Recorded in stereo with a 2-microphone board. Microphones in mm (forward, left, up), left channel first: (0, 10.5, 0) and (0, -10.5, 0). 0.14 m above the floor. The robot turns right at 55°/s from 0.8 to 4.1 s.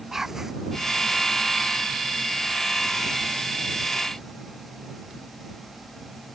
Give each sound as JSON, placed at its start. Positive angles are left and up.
{"t": 0.1, "sound": "whispering", "side_deg": -15}